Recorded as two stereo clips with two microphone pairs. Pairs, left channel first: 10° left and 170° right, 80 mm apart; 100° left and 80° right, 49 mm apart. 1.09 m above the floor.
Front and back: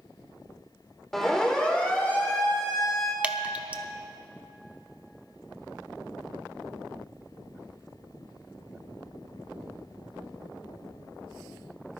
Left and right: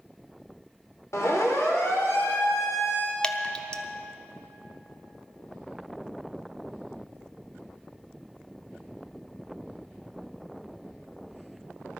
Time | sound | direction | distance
1.1 | a siren | 95° left | 2.5 m
3.2 | dripping | 140° left | 0.7 m